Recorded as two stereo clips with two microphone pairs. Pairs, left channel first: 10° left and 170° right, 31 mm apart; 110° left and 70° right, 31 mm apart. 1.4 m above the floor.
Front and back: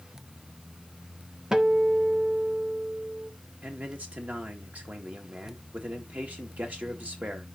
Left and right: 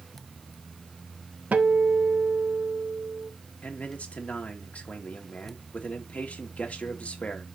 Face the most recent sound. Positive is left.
turn(degrees=155)